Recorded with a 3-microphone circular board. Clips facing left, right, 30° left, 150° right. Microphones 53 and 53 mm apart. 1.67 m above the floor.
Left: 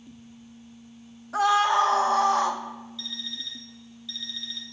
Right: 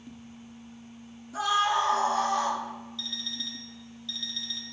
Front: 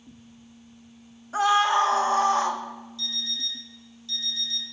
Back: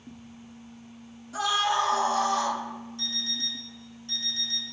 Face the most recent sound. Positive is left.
turn(degrees=175)